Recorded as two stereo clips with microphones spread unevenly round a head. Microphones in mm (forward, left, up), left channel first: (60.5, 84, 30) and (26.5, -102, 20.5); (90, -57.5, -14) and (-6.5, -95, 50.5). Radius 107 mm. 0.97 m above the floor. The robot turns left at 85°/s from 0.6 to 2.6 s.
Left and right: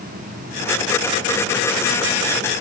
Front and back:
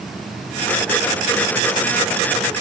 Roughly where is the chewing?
No chewing in this recording.